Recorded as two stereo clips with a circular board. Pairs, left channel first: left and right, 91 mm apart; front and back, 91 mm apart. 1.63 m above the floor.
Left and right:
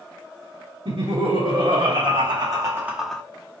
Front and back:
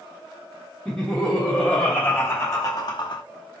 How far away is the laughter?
About 1.4 m.